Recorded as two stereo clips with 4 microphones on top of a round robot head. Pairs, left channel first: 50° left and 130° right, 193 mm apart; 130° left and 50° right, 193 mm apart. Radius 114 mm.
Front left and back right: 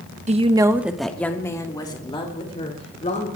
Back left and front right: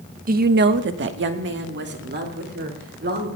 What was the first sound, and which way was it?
A woman speaking, 85° right.